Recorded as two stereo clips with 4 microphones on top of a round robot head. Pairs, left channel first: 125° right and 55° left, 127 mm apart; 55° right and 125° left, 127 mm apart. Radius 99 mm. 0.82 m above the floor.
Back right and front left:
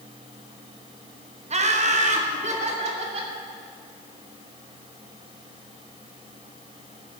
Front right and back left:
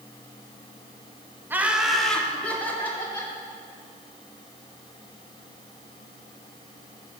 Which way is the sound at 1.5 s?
55° left.